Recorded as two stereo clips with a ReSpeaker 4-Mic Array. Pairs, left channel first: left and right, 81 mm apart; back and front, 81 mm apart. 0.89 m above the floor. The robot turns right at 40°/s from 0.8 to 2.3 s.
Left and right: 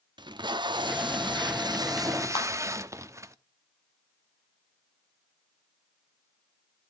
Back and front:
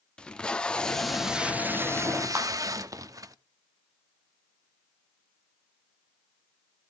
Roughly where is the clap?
Ahead left.